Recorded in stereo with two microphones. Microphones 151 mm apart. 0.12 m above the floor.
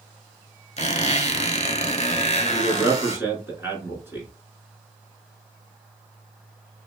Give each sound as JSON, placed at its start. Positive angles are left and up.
{"t": 0.8, "sound": "a squeak", "side_deg": 50, "distance_m": 0.7}
{"t": 2.5, "sound": "a man speaking", "side_deg": -15, "distance_m": 1.2}